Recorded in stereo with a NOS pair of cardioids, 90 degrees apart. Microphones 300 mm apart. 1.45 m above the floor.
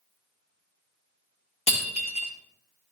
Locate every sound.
1.7 s breaking glass: 20° left, 2 m